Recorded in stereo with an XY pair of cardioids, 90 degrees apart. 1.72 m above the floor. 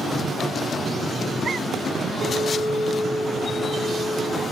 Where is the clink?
30° right, 4.5 m.